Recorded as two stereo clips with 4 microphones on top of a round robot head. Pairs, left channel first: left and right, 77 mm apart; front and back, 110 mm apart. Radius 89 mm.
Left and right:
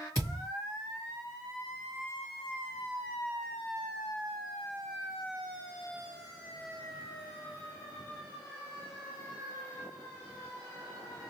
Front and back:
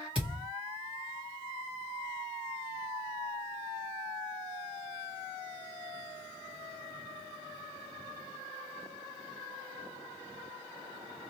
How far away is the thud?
About 1.5 m.